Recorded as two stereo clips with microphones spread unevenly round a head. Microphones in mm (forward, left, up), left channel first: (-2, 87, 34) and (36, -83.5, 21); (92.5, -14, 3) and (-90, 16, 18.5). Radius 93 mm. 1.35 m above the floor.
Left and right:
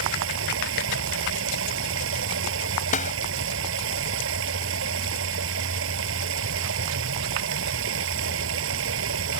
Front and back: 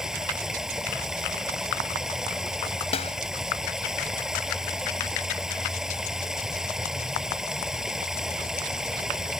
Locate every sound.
0.0 s running water: 105° right
2.9 s a snare drum: 55° left